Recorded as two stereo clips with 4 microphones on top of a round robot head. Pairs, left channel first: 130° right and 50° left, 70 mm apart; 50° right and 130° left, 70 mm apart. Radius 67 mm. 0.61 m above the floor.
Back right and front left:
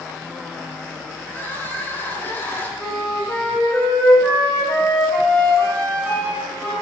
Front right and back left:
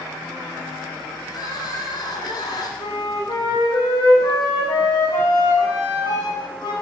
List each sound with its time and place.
1.3 s crying: 70° right, 2 m
2.8 s a flute: 50° right, 4 m